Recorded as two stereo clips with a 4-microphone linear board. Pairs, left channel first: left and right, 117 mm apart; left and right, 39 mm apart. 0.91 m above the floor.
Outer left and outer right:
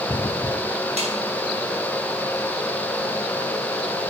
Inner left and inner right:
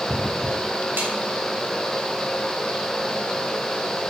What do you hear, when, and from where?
1.0 s a snare drum: 70° right (ahead or behind), 3.5 m